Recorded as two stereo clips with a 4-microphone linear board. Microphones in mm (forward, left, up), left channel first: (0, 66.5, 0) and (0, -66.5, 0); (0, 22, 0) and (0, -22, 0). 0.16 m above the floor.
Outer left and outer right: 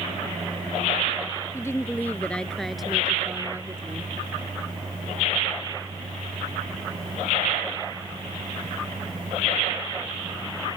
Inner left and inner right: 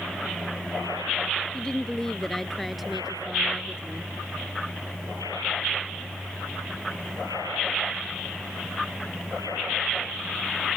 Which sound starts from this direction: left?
A woman speaking, at 1.5 s.